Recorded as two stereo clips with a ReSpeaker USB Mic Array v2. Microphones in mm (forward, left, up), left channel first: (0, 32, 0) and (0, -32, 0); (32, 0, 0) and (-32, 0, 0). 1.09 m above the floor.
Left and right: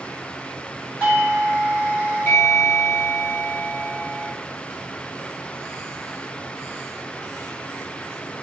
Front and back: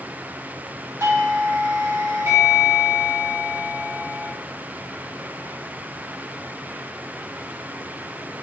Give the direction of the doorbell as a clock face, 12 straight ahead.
7 o'clock.